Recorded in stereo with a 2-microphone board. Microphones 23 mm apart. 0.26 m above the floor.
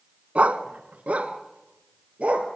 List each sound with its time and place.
0.3 s a dog barking: 70° right (ahead or behind), 1.1 m